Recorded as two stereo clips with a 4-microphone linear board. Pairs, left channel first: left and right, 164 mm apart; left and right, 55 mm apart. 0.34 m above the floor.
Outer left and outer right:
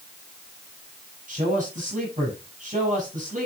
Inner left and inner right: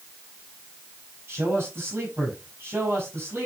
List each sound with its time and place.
1.3 s a man speaking: 55° right (ahead or behind), 7.5 m